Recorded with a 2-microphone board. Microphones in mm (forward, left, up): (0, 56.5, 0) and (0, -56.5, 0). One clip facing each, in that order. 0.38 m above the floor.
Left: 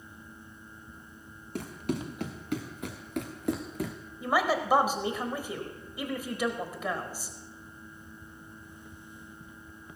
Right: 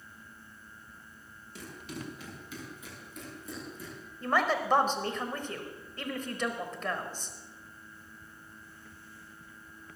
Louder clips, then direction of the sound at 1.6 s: Left 9 dB; 55° left (ahead or behind).